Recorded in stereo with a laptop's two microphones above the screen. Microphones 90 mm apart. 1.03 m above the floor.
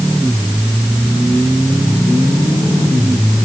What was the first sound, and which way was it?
Only background noise.